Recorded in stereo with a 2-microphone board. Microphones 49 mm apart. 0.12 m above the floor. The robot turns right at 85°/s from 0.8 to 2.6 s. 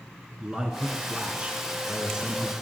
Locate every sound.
0.4 s a man speaking: 15° right (ahead or behind), 1.4 m; by 2.5 s centre (ahead or behind), 1.4 m